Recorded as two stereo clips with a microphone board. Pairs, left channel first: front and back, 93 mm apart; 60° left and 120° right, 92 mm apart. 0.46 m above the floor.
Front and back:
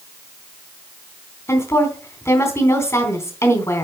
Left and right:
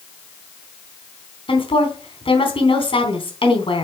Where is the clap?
I don't hear a clap.